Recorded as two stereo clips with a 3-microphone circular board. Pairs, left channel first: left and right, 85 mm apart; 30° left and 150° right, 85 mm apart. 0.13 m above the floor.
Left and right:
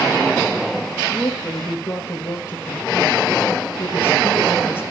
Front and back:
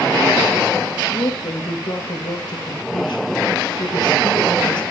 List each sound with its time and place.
1.0 s a woman speaking: 30° left, 2.5 m